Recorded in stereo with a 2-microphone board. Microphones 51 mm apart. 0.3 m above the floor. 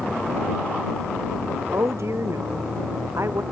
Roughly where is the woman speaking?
Right.